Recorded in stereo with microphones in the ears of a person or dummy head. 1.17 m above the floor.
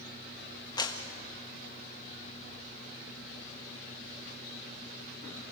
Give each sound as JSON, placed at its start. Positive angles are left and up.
{"t": 0.8, "sound": "a clap", "side_deg": 20, "distance_m": 1.3}